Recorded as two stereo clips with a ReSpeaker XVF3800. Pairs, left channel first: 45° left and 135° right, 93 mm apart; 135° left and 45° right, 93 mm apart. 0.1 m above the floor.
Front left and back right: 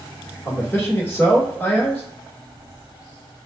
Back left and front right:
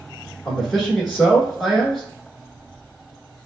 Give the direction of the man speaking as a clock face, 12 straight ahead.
10 o'clock.